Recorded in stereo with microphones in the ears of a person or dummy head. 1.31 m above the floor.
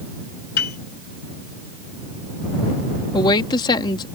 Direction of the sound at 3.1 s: 25° left (ahead or behind).